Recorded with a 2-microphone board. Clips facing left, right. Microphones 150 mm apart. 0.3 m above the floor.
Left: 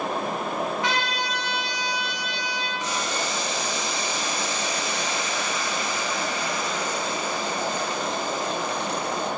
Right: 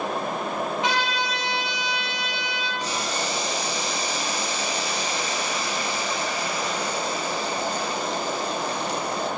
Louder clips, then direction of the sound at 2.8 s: Even; 35° right (ahead or behind).